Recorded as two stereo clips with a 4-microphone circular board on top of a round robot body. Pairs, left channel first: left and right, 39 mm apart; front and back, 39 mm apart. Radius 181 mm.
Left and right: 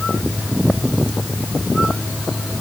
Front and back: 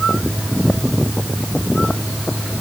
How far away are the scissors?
I don't hear scissors.